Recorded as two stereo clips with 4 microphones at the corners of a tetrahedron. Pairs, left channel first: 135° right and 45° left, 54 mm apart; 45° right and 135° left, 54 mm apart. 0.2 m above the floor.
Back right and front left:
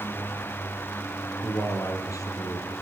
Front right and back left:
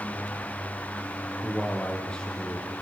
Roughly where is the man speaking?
Behind right.